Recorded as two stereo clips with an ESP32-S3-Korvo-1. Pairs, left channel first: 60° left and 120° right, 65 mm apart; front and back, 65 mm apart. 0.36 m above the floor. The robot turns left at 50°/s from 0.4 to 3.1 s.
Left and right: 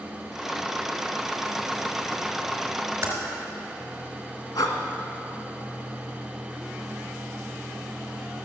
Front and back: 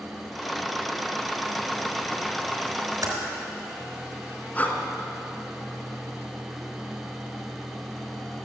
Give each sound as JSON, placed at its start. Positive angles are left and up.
{"t": 3.0, "sound": "typing on a keyboard", "azimuth_deg": -175, "distance_m": 3.5}
{"t": 4.5, "sound": "breathing", "azimuth_deg": 70, "distance_m": 1.7}